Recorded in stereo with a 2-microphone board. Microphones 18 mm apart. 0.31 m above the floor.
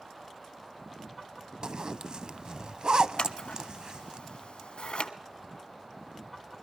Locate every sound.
1.6 s a zipper: 55° right (ahead or behind), 0.6 m
3.2 s scissors: 75° left (ahead or behind), 0.9 m